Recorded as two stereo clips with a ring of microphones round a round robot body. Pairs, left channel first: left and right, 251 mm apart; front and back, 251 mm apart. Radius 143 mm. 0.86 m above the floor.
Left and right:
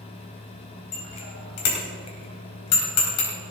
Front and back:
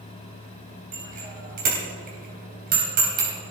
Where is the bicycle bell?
120° left, 3.5 m.